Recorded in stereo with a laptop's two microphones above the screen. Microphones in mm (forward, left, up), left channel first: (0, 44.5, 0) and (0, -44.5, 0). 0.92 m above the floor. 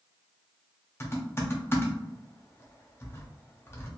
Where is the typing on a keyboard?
30° left (ahead or behind), 0.5 m.